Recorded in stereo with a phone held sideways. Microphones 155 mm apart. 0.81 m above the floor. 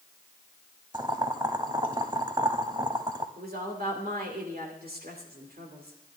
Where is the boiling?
30° right (ahead or behind), 0.8 m.